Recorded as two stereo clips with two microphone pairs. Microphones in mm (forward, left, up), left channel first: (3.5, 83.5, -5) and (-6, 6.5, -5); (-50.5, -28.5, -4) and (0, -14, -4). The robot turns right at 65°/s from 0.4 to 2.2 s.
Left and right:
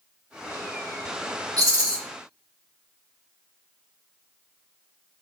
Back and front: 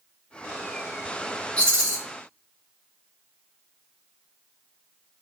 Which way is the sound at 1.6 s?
105° right.